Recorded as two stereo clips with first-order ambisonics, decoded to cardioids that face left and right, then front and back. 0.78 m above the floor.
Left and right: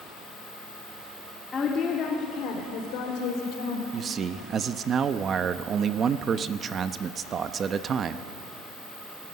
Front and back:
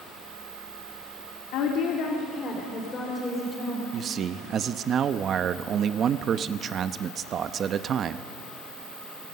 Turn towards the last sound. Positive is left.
turn(degrees=-135)